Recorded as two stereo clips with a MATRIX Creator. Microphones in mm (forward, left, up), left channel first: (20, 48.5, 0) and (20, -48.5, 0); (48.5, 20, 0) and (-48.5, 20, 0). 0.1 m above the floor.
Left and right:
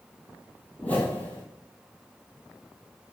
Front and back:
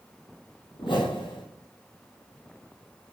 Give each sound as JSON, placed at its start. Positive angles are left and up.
{"t": 0.8, "sound": "a whoosh", "azimuth_deg": 20, "distance_m": 1.0}